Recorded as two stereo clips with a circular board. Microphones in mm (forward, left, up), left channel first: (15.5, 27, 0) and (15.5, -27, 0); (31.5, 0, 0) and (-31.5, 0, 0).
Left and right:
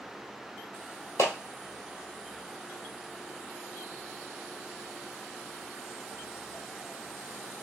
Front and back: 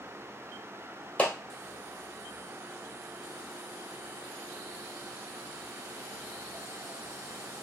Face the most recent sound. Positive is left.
turn(degrees=65)